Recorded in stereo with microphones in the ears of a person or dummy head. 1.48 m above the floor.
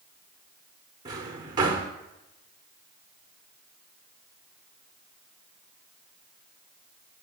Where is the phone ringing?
No phone ringing in this recording.